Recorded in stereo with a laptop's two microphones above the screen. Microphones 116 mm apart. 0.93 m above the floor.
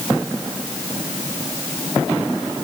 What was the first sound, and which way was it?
Only background noise.